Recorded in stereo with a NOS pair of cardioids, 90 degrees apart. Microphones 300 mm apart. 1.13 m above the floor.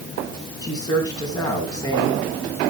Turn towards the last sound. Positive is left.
turn(degrees=10)